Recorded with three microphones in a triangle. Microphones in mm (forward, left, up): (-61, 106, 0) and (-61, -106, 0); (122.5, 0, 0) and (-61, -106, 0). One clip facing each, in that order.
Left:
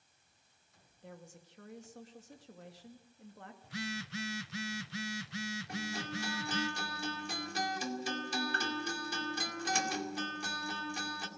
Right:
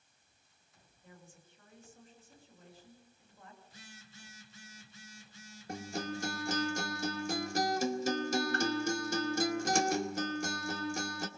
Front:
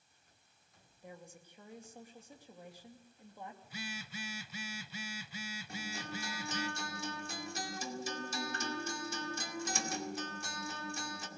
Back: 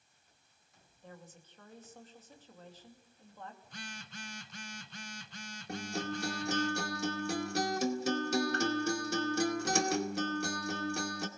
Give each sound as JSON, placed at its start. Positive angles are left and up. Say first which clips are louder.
{"t": 1.0, "sound": "a woman speaking", "louder": "left 6 dB, front 1 dB", "azimuth_deg": 110, "distance_m": 2.5}
{"t": 3.6, "sound": "a phone buzzing", "louder": "left 16 dB, front 3 dB", "azimuth_deg": 110, "distance_m": 0.5}
{"t": 5.7, "sound": "a guitar", "louder": "right 7 dB, back 9 dB", "azimuth_deg": -135, "distance_m": 2.0}